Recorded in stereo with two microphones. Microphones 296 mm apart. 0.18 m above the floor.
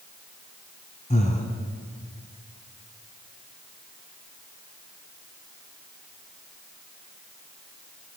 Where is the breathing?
25° left (ahead or behind), 1.1 m.